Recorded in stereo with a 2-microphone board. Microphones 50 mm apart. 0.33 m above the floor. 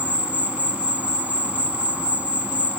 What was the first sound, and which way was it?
An insect, 30° right (ahead or behind).